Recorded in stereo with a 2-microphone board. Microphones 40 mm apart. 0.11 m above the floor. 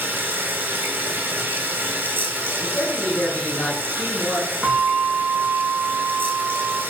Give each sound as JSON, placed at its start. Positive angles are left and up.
{"t": 0.0, "sound": "running water", "side_deg": -60, "distance_m": 0.8}
{"t": 2.6, "sound": "a man speaking", "side_deg": 25, "distance_m": 1.5}
{"t": 4.6, "sound": "a bell", "side_deg": -15, "distance_m": 0.7}